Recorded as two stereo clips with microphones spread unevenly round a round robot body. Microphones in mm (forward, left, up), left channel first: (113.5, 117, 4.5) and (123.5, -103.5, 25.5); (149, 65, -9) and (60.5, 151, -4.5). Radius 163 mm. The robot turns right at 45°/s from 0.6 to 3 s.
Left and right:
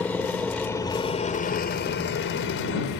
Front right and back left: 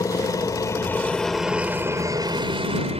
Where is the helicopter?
10° left; by 3.0 s 120° left.